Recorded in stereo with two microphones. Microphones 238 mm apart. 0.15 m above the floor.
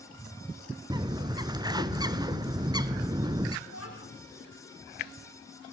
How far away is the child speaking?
About 7.5 m.